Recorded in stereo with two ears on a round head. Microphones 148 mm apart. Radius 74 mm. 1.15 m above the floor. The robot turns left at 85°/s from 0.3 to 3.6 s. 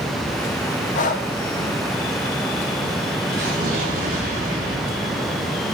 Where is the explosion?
80° right, 3 m; by 5.5 s 55° right (ahead or behind), 3 m.